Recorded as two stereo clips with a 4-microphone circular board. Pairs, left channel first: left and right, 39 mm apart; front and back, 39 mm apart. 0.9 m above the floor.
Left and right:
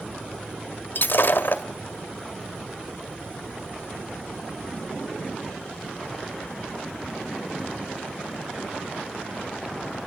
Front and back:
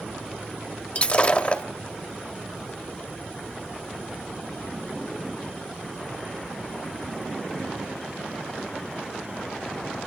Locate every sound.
0.9 s breaking glass: 55° left, 1.5 m